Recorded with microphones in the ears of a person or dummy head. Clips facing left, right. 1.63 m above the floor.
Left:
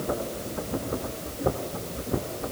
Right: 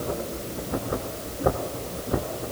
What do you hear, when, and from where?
Only background noise.